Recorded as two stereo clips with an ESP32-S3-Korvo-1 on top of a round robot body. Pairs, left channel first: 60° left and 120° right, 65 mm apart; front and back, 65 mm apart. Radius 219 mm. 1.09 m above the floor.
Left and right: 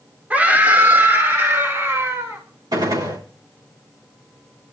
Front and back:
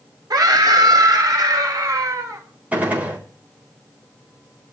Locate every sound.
0.3 s a scream: 175° left, 2 m; by 2.4 s 165° right, 3 m
2.7 s a gunshot: 115° right, 3.5 m